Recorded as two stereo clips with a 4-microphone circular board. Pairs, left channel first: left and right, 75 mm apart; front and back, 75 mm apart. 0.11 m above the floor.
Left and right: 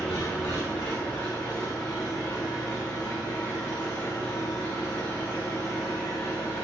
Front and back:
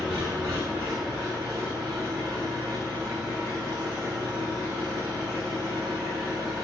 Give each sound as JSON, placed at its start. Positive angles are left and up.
{"t": 0.0, "sound": "an engine running", "azimuth_deg": 170, "distance_m": 4.5}